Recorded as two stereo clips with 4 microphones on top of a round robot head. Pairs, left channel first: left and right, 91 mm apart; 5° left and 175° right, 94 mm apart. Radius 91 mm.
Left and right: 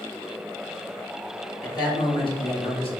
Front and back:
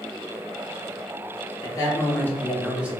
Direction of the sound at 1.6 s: 45° left.